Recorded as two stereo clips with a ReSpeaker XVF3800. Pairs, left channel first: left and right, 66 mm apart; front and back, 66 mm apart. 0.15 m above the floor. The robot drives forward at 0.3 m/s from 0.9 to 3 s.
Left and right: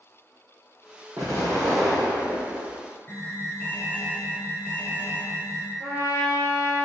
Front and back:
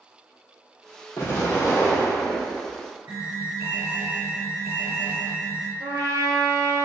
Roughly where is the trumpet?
Behind.